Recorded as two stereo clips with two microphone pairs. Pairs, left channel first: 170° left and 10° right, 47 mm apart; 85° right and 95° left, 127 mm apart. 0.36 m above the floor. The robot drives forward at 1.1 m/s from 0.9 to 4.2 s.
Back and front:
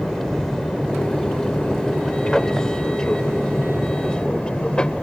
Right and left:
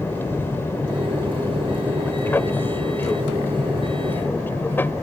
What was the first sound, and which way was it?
An aircraft, 125° right.